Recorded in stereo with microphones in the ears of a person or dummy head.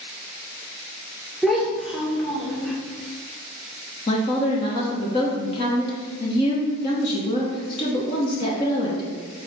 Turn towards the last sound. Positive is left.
turn(degrees=25)  # may be behind; listen again after turning